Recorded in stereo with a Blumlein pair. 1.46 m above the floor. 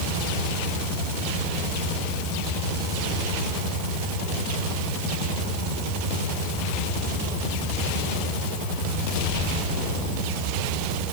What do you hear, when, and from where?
Only background noise.